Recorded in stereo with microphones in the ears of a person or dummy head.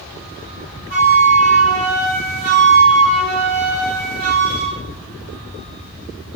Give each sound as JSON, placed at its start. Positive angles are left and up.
{"t": 0.9, "sound": "a flute", "side_deg": 25, "distance_m": 1.1}